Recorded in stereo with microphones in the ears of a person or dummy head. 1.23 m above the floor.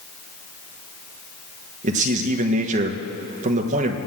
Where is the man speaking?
40° right (ahead or behind), 1.5 m.